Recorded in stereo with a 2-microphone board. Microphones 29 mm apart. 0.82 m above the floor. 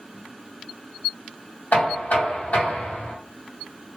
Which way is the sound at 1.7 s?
75° left (ahead or behind).